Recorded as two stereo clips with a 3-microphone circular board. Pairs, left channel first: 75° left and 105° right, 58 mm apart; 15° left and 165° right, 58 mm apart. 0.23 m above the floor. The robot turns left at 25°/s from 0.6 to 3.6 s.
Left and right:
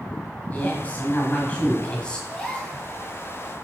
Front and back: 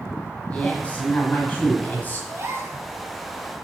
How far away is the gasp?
About 1.5 m.